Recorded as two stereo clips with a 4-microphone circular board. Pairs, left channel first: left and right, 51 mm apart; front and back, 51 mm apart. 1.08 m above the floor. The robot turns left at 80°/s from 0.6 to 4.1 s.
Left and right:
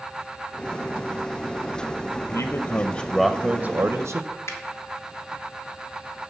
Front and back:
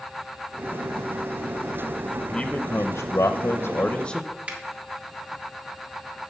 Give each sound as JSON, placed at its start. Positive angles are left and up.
{"t": 2.3, "sound": "a man speaking", "azimuth_deg": 80, "distance_m": 0.6}
{"t": 4.5, "sound": "a finger snap", "azimuth_deg": 115, "distance_m": 1.6}